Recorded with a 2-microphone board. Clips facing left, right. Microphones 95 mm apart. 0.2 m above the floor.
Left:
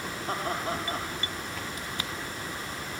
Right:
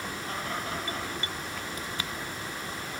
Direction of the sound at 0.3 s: 35° left (ahead or behind).